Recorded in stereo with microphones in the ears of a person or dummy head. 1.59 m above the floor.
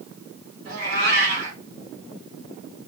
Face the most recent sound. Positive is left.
turn(degrees=-55)  # may be behind; listen again after turning